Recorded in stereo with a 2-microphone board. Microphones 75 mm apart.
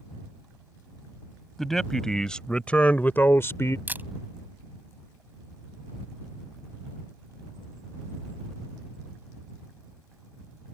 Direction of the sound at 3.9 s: 25° right (ahead or behind).